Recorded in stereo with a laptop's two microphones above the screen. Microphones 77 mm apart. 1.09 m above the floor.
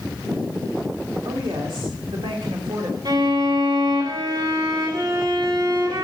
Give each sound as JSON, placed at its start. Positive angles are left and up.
{"t": 1.2, "sound": "a woman speaking", "side_deg": -85, "distance_m": 2.5}
{"t": 3.0, "sound": "a violin", "side_deg": -55, "distance_m": 2.5}